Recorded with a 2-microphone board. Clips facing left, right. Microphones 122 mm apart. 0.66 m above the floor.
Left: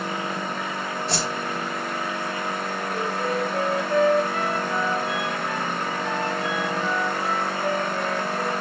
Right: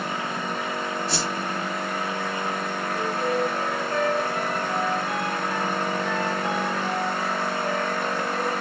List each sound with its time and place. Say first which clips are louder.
1.1 s a whoosh: left 1 dB; 55° left (ahead or behind), 3.5 m
2.9 s a flute: right 1 dB; 65° left (ahead or behind), 3.5 m